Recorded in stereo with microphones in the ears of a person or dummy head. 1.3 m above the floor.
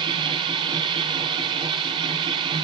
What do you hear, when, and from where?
0.0 s a machine running: 30° right (ahead or behind), 1.9 m